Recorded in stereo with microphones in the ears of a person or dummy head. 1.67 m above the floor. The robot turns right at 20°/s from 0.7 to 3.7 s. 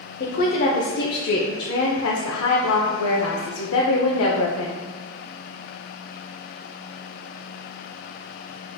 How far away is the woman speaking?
About 0.6 m.